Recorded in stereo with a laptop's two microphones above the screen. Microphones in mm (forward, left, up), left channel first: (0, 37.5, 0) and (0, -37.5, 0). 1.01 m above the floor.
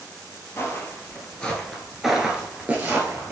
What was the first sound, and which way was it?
Footsteps, 30° left (ahead or behind).